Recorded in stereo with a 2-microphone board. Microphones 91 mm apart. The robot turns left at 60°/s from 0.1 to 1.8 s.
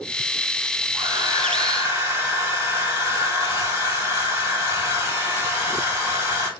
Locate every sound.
0.9 s a hair dryer: 85° right, 1.9 m; by 6.5 s 140° right, 1.9 m